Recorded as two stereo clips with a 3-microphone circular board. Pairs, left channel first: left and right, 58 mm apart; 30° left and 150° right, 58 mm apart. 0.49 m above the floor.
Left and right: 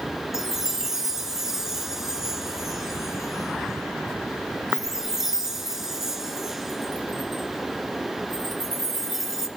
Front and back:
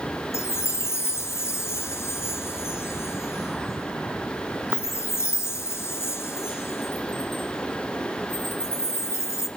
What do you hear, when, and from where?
0.3 s a chime: 10° right, 1.7 m